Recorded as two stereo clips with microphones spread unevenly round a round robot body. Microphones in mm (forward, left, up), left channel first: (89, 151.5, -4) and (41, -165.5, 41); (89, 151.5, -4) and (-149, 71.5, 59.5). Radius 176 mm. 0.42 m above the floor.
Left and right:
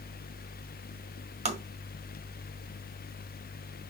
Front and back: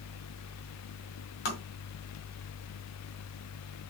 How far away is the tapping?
About 1.9 m.